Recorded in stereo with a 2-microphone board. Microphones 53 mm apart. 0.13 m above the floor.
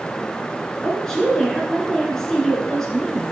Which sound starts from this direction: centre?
A woman speaking, at 0.8 s.